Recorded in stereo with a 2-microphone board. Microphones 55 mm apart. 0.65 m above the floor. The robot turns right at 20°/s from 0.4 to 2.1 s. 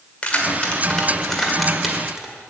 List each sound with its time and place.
0.2 s keys jangling: 25° left (ahead or behind), 1.8 m; by 2.3 s 10° right (ahead or behind), 1.8 m